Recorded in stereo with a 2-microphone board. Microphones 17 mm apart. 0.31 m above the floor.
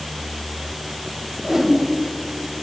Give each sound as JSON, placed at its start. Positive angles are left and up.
{"t": 1.4, "sound": "a whoosh", "side_deg": -35, "distance_m": 0.6}